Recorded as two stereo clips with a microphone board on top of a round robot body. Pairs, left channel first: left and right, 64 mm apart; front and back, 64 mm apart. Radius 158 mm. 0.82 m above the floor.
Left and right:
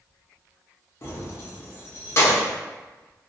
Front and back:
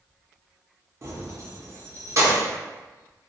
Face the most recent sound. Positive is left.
turn(degrees=135)